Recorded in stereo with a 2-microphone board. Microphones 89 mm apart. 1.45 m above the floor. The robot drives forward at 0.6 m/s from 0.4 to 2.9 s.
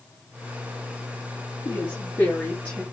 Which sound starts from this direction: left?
A woman speaking, at 1.6 s.